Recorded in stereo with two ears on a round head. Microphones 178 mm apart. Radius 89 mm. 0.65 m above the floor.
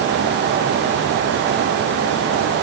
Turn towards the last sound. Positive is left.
No sound to turn to.